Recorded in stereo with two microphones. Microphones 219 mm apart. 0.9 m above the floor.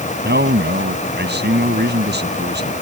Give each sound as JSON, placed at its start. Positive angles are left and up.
{"t": 0.2, "sound": "a man speaking", "side_deg": -50}